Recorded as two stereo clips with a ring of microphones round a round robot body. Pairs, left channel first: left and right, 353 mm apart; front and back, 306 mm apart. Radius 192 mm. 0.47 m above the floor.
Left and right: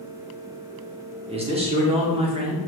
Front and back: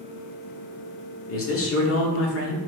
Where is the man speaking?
20° right, 1.1 m.